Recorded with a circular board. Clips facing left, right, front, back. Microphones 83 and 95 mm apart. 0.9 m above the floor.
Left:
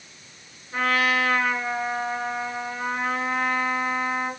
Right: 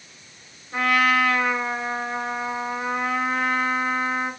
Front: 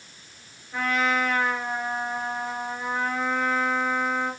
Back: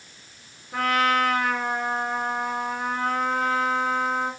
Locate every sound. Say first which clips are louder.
0.7 s a trumpet: right 3 dB, back 3 dB; 165° right, 4.5 m